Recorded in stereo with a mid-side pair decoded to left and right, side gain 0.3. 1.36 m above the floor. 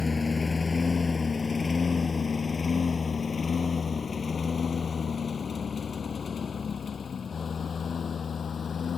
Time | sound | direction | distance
0.0 | a lawn mower | 45° left | ?